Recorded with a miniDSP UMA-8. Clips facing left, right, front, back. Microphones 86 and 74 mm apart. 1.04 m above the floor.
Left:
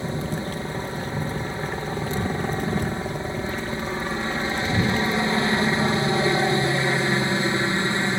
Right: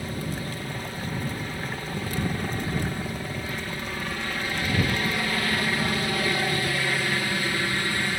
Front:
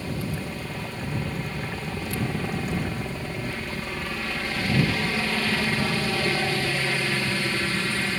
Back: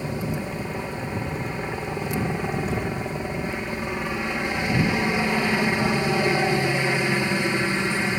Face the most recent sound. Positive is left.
turn(degrees=130)